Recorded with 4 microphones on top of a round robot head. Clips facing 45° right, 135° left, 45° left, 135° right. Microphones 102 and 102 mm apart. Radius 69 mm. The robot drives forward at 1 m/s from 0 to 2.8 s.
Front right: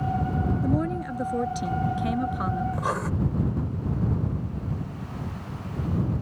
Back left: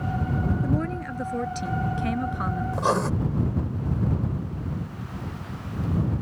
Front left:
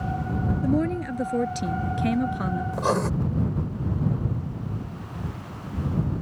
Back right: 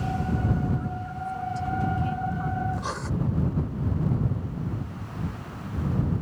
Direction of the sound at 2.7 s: 75° left.